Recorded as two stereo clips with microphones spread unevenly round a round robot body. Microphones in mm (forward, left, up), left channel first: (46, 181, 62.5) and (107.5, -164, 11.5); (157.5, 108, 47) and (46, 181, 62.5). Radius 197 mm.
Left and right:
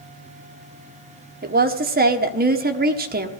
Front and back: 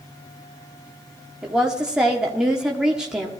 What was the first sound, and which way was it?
A woman speaking, 125° right.